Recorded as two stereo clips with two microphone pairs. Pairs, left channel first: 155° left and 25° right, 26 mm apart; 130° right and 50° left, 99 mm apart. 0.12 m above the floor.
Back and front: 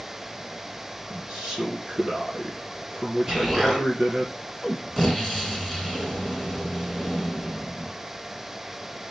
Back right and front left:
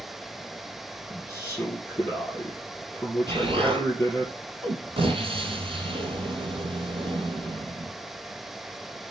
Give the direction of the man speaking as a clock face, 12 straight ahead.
3 o'clock.